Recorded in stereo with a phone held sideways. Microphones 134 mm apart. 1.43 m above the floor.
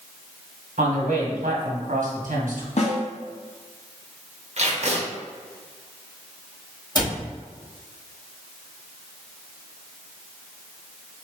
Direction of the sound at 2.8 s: 55° left (ahead or behind).